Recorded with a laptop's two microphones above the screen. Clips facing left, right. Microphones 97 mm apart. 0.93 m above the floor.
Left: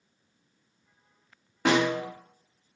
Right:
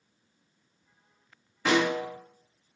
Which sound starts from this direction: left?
A snare drum, at 1.6 s.